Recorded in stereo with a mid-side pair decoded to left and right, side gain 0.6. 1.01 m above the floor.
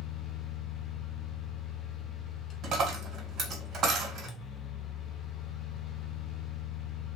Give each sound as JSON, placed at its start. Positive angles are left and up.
{"t": 0.0, "sound": "a fan", "azimuth_deg": 45, "distance_m": 0.7}
{"t": 2.6, "sound": "a dropped coin", "azimuth_deg": -50, "distance_m": 1.4}